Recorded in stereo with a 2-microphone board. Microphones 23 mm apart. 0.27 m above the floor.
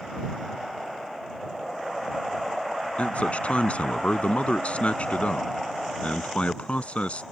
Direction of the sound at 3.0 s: 55° left (ahead or behind).